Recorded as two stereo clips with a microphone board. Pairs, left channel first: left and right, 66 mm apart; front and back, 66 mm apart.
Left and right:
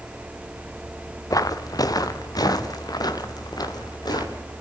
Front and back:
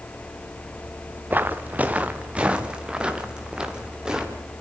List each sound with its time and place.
1.3 s footsteps: 120° left, 1.3 m; by 4.5 s 100° left, 3 m